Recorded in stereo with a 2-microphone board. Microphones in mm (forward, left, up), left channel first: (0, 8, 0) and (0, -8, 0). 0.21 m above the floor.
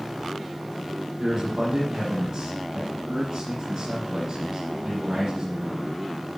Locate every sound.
1.2 s a man speaking: 20° right (ahead or behind), 8 m